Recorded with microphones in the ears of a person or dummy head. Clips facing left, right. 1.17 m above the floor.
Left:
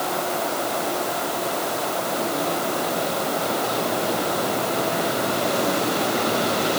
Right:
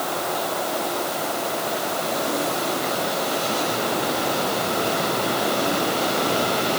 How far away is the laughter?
I don't hear laughter.